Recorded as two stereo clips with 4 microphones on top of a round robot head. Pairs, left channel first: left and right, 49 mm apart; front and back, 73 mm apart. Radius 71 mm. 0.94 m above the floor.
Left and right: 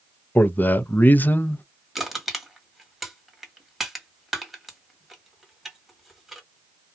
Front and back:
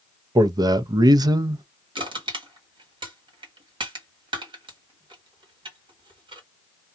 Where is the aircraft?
I don't hear an aircraft.